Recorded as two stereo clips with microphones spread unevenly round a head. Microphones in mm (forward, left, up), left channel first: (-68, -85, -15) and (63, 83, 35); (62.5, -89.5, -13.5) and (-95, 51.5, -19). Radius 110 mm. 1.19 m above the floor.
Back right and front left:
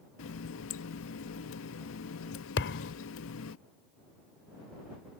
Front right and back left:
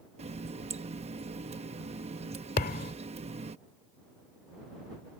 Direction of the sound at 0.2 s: 160° right.